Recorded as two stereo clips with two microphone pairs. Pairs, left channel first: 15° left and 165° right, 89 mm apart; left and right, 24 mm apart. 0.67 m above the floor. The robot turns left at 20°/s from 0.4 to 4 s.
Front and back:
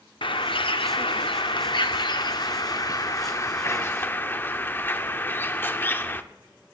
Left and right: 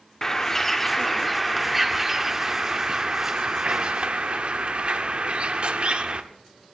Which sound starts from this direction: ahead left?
A bird, at 0.2 s.